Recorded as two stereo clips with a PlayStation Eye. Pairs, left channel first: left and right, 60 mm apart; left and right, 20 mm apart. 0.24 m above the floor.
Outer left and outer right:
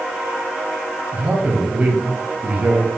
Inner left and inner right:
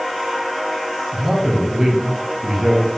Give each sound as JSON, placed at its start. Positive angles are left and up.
{"t": 1.1, "sound": "a man speaking", "side_deg": -25, "distance_m": 1.0}